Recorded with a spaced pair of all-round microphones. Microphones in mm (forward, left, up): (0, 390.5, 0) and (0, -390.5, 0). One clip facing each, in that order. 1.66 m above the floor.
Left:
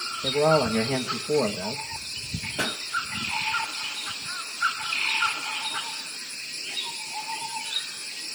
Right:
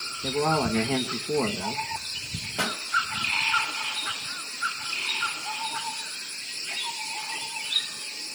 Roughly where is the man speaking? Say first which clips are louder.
Left 3 dB; centre.